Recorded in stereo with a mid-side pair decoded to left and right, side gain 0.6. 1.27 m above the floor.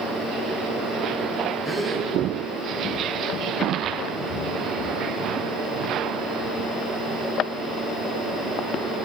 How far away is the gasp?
About 4 m.